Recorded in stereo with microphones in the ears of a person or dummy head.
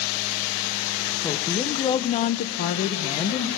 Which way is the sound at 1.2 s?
15° left (ahead or behind).